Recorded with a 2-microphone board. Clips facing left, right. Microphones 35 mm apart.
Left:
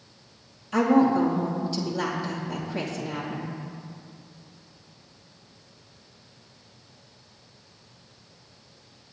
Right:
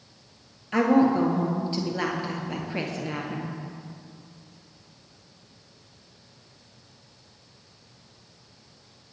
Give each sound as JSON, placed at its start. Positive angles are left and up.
{"t": 0.7, "sound": "a woman speaking", "side_deg": -35, "distance_m": 2.5}